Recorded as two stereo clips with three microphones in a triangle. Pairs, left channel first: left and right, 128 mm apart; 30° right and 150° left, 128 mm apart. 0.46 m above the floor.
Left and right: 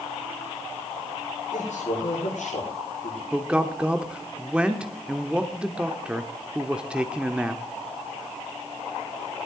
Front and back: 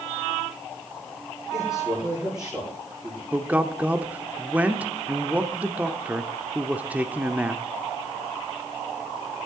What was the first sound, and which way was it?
A man speaking, 70° left.